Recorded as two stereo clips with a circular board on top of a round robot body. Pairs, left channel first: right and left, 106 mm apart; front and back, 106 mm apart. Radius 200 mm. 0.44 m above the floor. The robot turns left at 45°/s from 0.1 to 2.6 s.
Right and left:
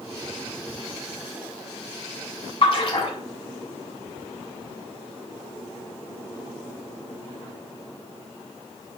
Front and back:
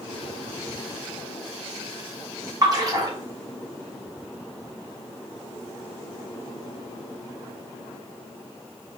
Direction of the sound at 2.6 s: 125° right.